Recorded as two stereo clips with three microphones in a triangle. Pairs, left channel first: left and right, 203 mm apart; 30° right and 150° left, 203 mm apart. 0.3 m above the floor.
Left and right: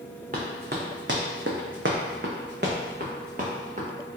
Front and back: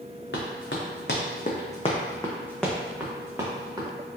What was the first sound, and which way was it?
Running footsteps, 45° right.